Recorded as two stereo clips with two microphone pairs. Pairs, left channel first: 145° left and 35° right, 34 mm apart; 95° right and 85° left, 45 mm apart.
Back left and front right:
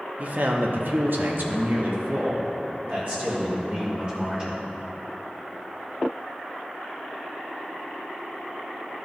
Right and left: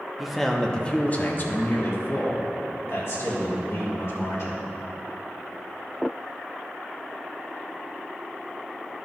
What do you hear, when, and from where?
0.2 s a man speaking: straight ahead, 0.9 m; by 4.6 s 90° right, 3 m